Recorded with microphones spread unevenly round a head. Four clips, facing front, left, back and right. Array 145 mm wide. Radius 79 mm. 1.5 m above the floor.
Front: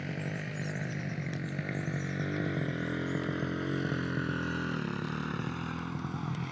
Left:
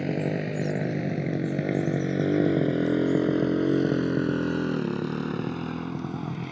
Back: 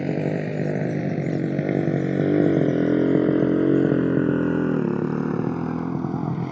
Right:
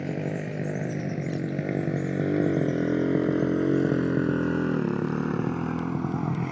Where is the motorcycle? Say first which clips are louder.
Left 3 dB, back 14 dB; 165° left; by 6.5 s 165° right.